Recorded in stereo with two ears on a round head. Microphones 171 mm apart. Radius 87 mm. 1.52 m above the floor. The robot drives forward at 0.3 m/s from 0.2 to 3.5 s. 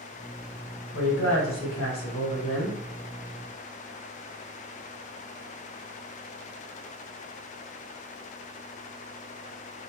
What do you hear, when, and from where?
0.9 s a woman speaking: 60° left (ahead or behind), 1.6 m; by 2.8 s 80° left, 1.4 m